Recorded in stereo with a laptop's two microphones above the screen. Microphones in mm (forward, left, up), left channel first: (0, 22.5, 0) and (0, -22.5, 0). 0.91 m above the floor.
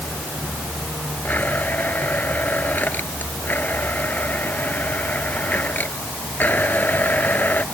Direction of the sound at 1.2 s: 40° left (ahead or behind).